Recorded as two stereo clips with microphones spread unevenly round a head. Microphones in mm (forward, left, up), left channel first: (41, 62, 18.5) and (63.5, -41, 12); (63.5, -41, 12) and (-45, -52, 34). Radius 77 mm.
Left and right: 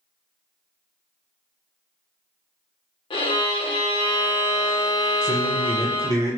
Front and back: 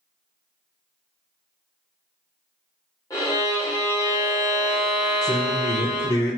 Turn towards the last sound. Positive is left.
turn(degrees=55)